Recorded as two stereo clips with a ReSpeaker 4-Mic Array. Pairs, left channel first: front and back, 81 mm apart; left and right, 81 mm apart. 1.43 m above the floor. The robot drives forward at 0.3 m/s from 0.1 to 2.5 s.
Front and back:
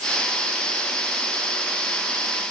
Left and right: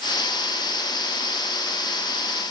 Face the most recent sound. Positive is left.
No sound to turn to.